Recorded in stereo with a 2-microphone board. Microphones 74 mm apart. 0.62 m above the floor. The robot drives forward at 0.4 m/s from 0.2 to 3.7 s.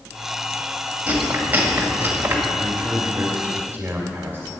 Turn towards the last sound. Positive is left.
turn(degrees=-30)  # may be behind; listen again after turning